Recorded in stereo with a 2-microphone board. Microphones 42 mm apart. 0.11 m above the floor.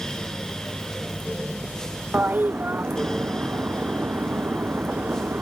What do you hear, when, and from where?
2.1 s a toilet flushing: 45° right (ahead or behind)